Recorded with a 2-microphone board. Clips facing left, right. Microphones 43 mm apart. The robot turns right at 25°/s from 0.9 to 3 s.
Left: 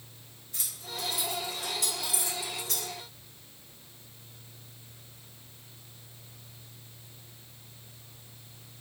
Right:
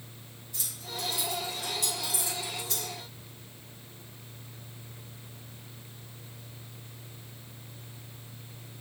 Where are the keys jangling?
60° left (ahead or behind), 1.1 m; by 2.9 s 70° left (ahead or behind), 1.1 m.